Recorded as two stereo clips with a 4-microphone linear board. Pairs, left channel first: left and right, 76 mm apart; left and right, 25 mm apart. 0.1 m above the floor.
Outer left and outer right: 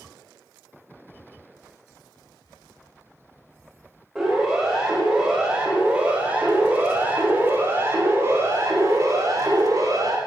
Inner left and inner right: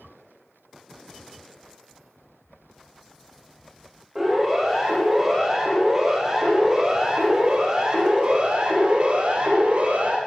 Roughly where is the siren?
Centre.